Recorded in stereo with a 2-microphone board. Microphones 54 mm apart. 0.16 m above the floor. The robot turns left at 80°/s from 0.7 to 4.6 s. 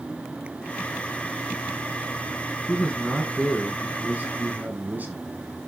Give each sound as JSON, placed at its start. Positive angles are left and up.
{"t": 2.7, "sound": "a man speaking", "azimuth_deg": 45, "distance_m": 1.4}